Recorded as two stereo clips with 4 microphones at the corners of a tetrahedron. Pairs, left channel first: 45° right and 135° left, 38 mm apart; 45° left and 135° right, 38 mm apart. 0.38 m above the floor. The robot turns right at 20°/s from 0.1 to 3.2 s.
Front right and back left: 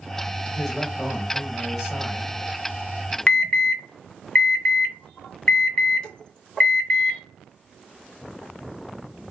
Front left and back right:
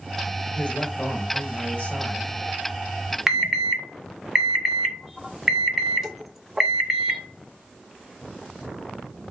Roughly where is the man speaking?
Ahead left.